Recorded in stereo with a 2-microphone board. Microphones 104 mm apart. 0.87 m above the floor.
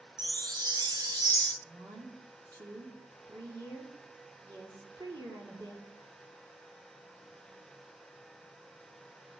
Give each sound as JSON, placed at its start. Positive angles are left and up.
{"t": 0.2, "sound": "a chime", "side_deg": -40, "distance_m": 0.8}
{"t": 1.6, "sound": "a woman speaking", "side_deg": -45, "distance_m": 2.5}